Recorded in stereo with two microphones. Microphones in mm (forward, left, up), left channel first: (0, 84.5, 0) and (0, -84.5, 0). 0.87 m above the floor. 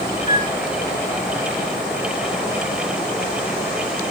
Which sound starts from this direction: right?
A flute, at 0.3 s.